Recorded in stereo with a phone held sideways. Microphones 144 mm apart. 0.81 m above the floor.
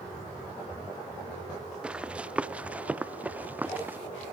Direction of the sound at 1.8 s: 5° right (ahead or behind).